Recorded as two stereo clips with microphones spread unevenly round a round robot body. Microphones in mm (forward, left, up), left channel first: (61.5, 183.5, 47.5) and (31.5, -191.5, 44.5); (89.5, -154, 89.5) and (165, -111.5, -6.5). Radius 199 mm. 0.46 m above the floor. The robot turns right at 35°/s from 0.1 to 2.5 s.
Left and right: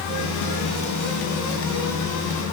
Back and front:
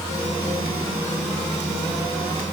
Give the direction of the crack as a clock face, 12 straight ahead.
I don't hear a crack.